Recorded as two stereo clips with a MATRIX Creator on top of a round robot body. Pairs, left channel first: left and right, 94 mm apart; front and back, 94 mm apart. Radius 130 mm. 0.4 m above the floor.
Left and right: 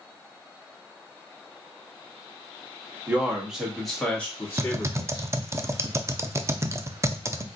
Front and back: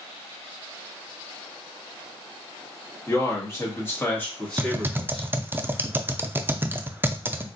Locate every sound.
3.1 s a man speaking: 25° right, 1.4 m; by 5.3 s 85° left, 1.5 m
4.6 s typing on a keyboard: 130° right, 0.5 m